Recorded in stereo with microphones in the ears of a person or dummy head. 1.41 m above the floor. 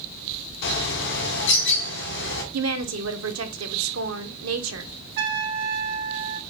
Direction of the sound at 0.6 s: 60° left (ahead or behind).